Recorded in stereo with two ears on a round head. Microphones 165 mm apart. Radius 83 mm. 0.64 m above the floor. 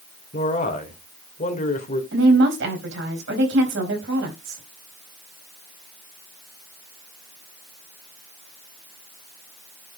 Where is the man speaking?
40° left (ahead or behind), 1.8 m.